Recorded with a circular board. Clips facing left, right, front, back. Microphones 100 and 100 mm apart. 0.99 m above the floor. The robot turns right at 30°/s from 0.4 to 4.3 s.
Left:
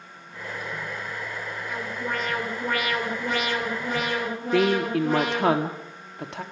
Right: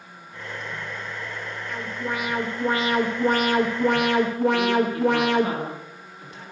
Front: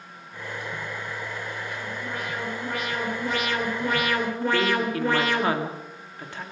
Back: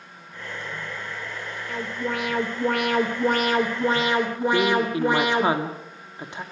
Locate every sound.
1.7 s an alarm: 175° left, 3 m; by 5.5 s 110° right, 3 m
4.5 s a woman speaking: 110° left, 1.6 m